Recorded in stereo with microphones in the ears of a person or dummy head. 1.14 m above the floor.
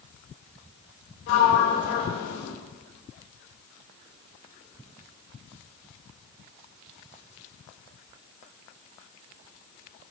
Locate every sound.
1.3 s a sliding door: 75° left (ahead or behind), 4 m